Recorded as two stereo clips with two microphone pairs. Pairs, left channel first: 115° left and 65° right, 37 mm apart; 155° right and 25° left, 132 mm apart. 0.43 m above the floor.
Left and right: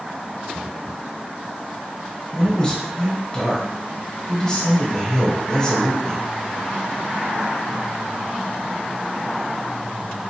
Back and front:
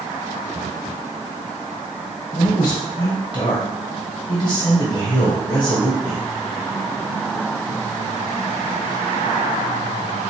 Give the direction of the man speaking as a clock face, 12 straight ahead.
6 o'clock.